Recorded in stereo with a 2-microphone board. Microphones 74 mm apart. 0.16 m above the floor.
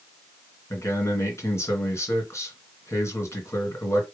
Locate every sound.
0.7 s a man speaking: 40° left (ahead or behind), 2.5 m